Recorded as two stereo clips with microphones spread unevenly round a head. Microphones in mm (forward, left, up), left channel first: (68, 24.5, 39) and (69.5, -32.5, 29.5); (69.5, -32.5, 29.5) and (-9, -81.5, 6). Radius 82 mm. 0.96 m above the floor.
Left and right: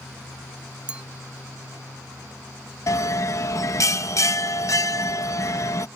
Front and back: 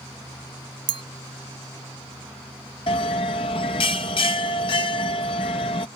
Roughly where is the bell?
Left.